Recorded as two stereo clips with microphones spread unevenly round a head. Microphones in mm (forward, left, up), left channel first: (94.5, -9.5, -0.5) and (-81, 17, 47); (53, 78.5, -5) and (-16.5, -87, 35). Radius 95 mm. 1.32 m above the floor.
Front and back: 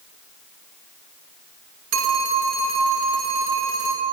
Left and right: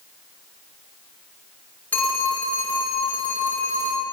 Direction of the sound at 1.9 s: 150° left.